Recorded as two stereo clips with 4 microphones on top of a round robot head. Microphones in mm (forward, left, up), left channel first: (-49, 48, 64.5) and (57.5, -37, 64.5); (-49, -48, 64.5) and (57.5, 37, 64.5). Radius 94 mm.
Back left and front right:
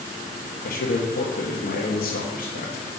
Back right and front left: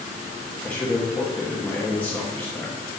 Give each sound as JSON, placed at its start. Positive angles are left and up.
{"t": 0.6, "sound": "a man speaking", "azimuth_deg": 135, "distance_m": 1.2}